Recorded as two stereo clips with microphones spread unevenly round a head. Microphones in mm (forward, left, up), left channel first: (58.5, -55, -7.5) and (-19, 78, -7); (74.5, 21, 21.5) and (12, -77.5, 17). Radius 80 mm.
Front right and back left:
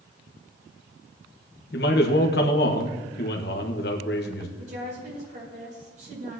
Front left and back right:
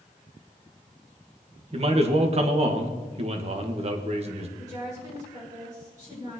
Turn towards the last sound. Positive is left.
turn(degrees=170)